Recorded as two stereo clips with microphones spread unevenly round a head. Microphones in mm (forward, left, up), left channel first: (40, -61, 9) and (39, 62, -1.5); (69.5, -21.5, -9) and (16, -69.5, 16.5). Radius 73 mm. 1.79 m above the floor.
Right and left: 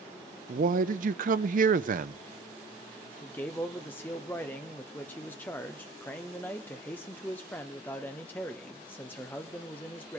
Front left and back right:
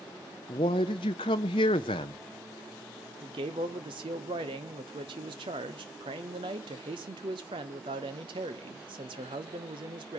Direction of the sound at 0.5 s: 75° left.